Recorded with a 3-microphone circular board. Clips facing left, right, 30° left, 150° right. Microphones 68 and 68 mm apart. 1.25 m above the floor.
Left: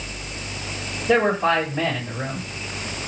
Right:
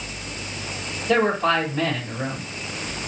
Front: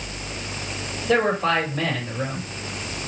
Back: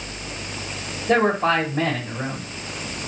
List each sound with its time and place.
1.1 s a man speaking: 155° left, 3 m